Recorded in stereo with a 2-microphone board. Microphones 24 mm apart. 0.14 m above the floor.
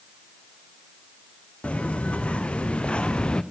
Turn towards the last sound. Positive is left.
turn(degrees=45)  # may be behind; listen again after turning